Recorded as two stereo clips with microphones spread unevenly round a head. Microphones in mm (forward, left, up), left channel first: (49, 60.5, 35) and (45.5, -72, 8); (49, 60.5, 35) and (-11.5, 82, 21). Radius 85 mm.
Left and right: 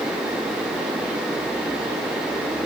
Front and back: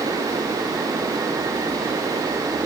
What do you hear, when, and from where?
Only background noise.